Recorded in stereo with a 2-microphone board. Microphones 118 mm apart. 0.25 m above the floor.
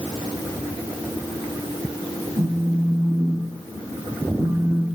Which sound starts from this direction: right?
A phone buzzing, at 2.4 s.